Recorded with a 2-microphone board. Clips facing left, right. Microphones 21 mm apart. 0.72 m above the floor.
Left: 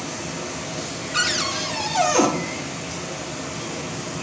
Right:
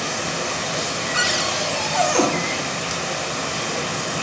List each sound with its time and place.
0.0 s running water: 55° right (ahead or behind), 0.7 m
1.1 s a cupboard door: 5° left (ahead or behind), 0.7 m